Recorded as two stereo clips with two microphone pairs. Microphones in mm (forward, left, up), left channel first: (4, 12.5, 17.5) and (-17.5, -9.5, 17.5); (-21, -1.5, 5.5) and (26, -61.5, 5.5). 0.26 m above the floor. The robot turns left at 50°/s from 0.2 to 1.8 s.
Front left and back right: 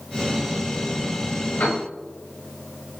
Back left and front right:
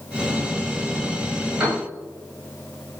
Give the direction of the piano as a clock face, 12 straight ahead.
11 o'clock.